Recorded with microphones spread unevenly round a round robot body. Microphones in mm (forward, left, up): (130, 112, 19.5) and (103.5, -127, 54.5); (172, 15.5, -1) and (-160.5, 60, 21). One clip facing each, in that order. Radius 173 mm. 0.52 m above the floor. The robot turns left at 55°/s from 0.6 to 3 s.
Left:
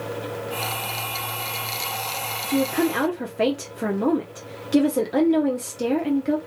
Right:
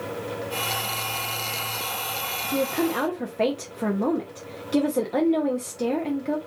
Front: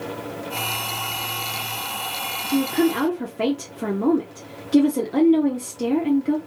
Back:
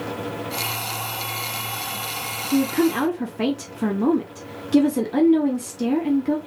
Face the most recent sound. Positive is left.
turn(degrees=95)